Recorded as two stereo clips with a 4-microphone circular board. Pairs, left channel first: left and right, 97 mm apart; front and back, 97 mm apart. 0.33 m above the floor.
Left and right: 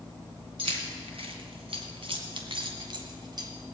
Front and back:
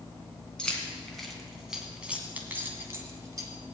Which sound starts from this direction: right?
Keys jangling, at 0.6 s.